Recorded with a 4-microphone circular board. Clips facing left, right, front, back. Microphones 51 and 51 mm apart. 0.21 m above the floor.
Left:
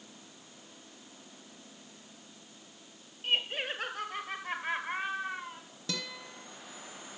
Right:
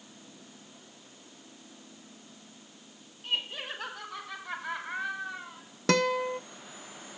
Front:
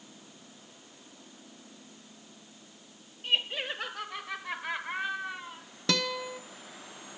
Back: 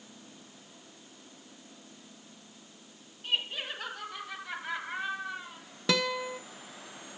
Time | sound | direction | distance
3.2 | laughter | 50° left | 4 m
5.9 | a guitar | 100° right | 0.6 m